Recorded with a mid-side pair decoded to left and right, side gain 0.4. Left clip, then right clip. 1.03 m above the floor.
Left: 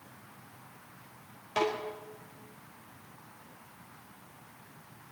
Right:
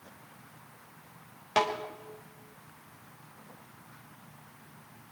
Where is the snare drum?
40° right, 4.5 m.